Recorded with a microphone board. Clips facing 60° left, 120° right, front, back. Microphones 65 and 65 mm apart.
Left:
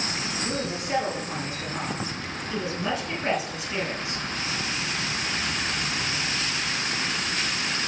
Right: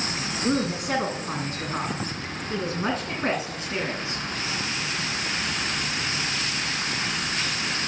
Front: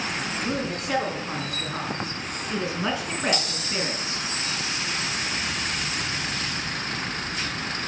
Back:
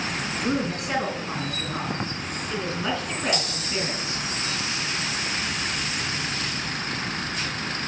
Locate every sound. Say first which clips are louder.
0.4 s a woman speaking: right 8 dB, back 4 dB; 100° right, 3 m; by 4.2 s 65° right, 4 m